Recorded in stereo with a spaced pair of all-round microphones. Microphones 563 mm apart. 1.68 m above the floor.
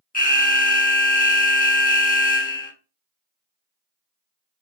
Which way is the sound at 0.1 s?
15° left (ahead or behind).